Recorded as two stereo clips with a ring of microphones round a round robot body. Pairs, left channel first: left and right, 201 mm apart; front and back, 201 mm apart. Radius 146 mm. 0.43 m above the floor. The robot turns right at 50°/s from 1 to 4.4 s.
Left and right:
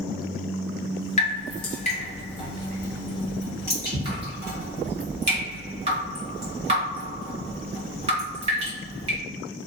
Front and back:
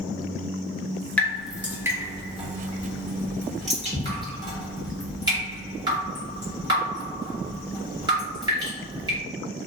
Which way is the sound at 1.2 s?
75° left.